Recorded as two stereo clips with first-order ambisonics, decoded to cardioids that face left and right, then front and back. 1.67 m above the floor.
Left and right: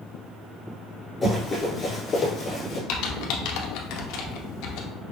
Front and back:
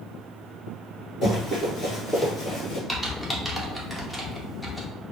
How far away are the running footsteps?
About 1.7 m.